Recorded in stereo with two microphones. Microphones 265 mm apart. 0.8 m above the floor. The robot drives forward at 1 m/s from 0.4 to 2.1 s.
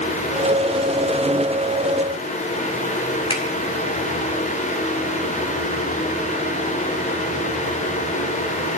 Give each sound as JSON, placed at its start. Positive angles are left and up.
{"t": 3.3, "sound": "a finger snap", "side_deg": 20, "distance_m": 1.8}